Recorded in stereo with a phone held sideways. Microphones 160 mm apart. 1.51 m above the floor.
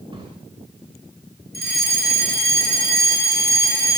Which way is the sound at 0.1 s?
30° right (ahead or behind).